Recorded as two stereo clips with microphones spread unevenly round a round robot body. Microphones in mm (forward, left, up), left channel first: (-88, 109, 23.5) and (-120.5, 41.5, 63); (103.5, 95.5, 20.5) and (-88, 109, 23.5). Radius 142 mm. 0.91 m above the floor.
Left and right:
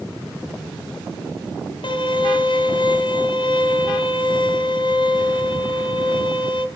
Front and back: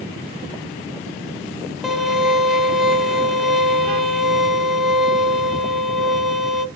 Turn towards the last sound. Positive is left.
turn(degrees=90)